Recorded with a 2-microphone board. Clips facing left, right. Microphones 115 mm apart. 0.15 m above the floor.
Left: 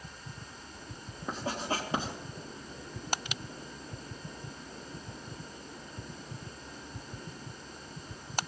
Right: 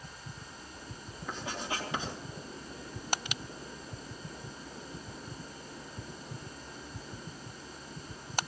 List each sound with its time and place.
1.3 s writing: 40° left (ahead or behind), 3.5 m